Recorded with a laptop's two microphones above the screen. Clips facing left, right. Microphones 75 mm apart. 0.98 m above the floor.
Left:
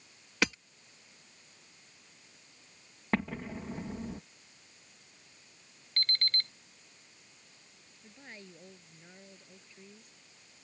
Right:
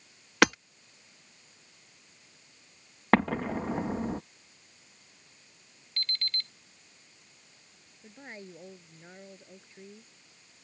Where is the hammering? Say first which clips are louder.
Right 9 dB; 60° right (ahead or behind).